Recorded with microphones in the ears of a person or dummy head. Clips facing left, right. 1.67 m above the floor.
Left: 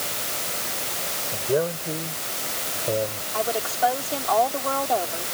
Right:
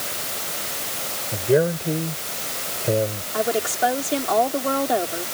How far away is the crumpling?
No crumpling in this recording.